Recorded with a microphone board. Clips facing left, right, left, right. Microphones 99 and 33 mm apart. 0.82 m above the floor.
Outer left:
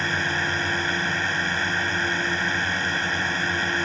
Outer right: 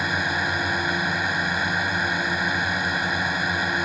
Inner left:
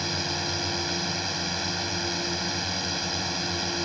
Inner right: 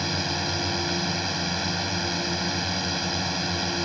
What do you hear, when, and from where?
0.0 s a drone: 10° right (ahead or behind)